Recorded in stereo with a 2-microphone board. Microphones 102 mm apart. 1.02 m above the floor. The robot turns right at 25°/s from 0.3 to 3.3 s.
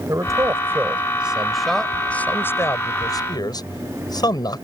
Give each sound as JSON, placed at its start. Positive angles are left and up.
{"t": 0.1, "sound": "a man speaking", "azimuth_deg": -30}